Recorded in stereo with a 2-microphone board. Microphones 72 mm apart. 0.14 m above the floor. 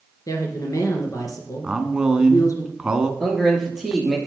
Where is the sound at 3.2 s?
5° right (ahead or behind), 2.5 m.